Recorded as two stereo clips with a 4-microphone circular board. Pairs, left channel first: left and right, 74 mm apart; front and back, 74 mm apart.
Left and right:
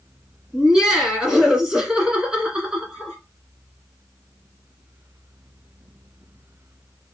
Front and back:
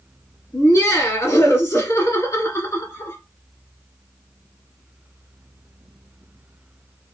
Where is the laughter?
10° right, 1.6 m.